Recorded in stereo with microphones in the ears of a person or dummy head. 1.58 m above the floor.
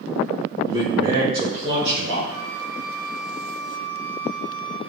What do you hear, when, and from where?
0.7 s a man speaking: 20° right (ahead or behind), 5 m; by 2.2 s 35° right (ahead or behind), 6 m
2.3 s a flute: 20° right (ahead or behind), 1.5 m